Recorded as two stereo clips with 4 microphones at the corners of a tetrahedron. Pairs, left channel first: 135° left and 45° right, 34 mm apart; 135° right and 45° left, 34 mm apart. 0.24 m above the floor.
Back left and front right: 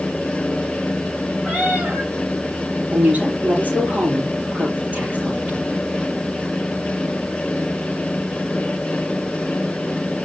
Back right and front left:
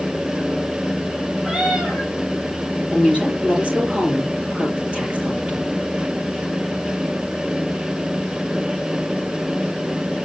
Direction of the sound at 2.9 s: 20° right.